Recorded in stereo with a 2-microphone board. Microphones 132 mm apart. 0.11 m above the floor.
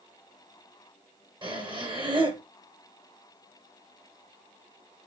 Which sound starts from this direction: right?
Breathing, at 1.4 s.